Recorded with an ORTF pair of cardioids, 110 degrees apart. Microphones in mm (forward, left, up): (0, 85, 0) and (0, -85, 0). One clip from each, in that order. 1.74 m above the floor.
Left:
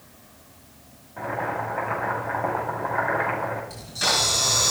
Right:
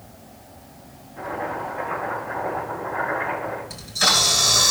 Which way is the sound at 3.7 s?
25° right.